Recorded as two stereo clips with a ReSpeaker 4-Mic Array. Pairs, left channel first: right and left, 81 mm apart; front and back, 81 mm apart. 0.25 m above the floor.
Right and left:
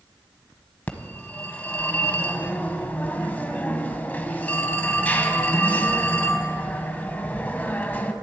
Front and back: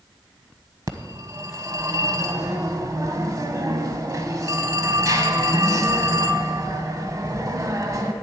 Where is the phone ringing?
155° right, 1.1 m.